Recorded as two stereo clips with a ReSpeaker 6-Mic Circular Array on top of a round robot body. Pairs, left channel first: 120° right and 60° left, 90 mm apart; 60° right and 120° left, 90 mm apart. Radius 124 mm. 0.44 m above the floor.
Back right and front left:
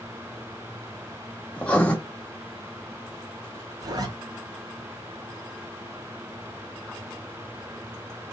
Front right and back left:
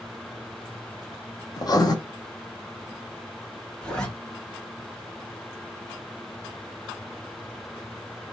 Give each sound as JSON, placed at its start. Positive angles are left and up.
{"t": 1.6, "sound": "writing", "azimuth_deg": -50, "distance_m": 1.4}
{"t": 3.8, "sound": "a zipper", "azimuth_deg": 20, "distance_m": 1.4}